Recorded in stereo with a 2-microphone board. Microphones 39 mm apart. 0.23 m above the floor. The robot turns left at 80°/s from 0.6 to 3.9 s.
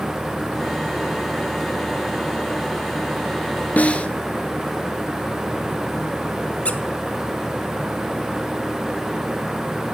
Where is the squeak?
35° left (ahead or behind), 0.6 m.